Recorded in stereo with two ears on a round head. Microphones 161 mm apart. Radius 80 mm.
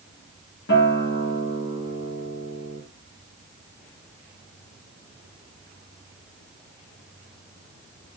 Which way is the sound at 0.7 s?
65° left (ahead or behind).